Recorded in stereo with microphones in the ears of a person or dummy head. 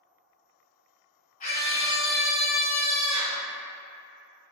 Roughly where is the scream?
Left.